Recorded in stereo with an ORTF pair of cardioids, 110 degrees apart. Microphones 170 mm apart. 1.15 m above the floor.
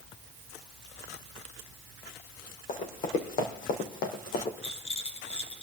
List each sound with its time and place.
2.7 s running footsteps: 55° left, 3.5 m; by 4.5 s 70° left, 3 m
4.6 s a rattle: 40° left, 4 m